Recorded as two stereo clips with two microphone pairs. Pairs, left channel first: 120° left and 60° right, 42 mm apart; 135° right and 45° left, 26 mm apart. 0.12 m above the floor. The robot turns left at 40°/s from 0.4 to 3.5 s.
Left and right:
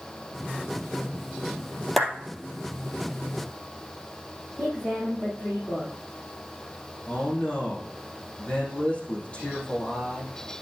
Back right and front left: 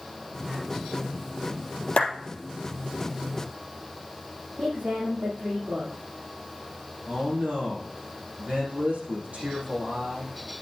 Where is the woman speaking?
50° left, 5.5 m.